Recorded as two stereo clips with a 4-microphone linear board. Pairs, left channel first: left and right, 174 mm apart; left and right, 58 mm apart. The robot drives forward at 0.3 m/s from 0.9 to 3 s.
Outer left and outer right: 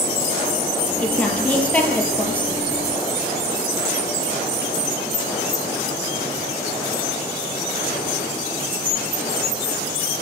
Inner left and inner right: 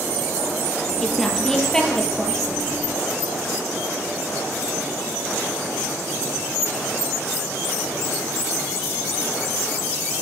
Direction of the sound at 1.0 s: 10° left (ahead or behind).